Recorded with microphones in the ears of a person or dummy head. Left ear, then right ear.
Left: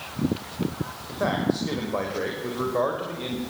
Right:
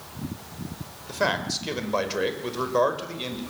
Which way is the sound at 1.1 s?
75° right (ahead or behind).